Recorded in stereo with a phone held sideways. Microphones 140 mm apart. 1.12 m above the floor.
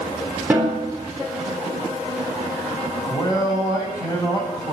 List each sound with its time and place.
0.5 s a snare drum: 10° right (ahead or behind), 3.5 m
3.1 s a man speaking: 25° left (ahead or behind), 7.5 m